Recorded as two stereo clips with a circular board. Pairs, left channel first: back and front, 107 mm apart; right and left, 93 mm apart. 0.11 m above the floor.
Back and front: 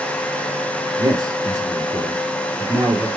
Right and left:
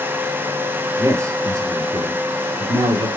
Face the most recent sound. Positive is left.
turn(degrees=70)